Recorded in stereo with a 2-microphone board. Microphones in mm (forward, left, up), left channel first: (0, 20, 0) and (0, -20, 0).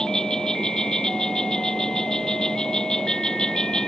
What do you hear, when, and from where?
0.0 s an insect: 20° left (ahead or behind)